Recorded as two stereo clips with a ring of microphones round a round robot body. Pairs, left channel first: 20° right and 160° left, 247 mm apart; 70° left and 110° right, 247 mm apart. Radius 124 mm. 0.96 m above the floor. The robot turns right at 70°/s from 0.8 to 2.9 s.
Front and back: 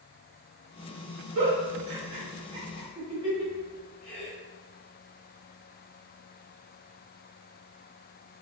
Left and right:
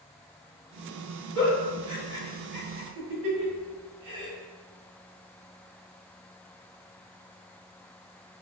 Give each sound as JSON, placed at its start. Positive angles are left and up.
{"t": 1.4, "sound": "a giggle", "azimuth_deg": 145, "distance_m": 1.7}